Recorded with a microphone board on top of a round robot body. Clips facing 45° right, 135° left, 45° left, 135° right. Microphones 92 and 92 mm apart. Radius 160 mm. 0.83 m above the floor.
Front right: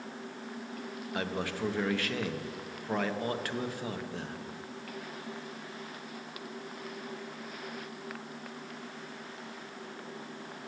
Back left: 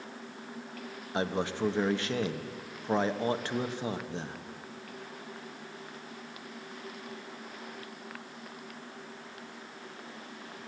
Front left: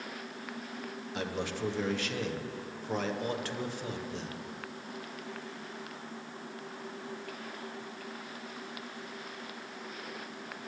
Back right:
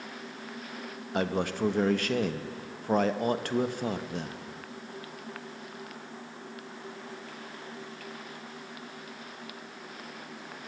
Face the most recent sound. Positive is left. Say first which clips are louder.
# back left 4 dB, back right 7 dB
turn(degrees=-160)